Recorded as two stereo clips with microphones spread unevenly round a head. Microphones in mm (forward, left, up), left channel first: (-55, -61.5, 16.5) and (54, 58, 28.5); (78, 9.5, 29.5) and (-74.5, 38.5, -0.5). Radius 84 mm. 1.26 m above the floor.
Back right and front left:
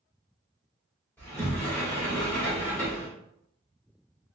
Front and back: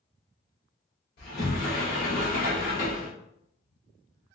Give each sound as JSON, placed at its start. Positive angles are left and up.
{"t": 1.2, "sound": "a sliding door", "azimuth_deg": -55, "distance_m": 1.8}